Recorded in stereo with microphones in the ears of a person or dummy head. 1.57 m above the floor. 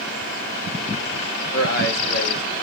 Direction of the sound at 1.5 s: 55° left (ahead or behind).